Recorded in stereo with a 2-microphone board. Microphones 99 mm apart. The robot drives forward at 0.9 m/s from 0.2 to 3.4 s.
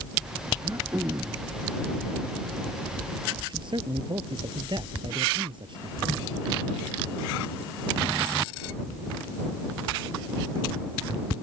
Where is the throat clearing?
35° right (ahead or behind).